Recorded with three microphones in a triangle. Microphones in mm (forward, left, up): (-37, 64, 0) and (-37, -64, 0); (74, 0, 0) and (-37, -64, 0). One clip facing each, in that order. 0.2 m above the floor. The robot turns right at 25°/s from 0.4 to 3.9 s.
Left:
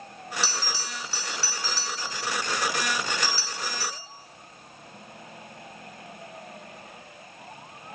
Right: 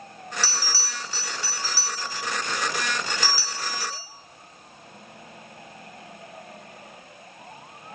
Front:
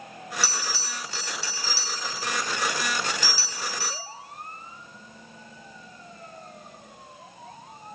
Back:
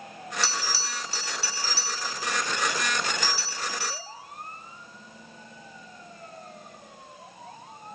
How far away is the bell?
About 1.1 m.